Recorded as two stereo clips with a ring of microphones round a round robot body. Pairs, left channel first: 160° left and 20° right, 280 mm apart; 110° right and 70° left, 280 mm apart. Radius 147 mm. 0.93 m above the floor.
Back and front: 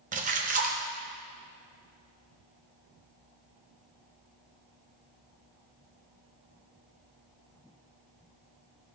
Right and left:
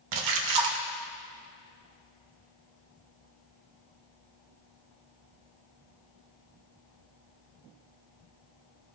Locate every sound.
0.1 s a splash: 45° left, 0.8 m